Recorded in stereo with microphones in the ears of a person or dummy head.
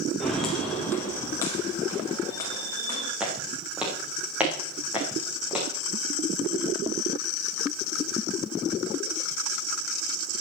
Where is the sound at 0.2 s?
Centre (ahead or behind), 1.6 m; by 3.1 s 20° left (ahead or behind), 4.5 m.